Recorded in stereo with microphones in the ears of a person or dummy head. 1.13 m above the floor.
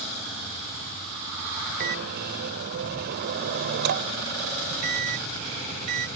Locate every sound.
1.8 s a microwave: 55° right (ahead or behind)